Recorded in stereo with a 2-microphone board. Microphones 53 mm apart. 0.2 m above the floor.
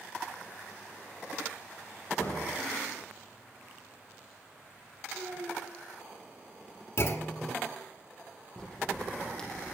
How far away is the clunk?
About 1.6 m.